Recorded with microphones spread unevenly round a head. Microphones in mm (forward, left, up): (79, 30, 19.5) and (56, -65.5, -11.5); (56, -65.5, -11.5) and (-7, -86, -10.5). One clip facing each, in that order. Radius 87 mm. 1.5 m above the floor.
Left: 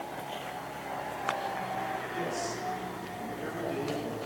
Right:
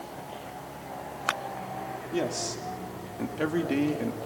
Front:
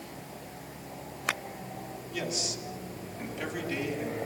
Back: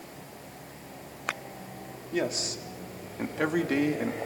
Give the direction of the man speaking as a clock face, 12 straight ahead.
4 o'clock.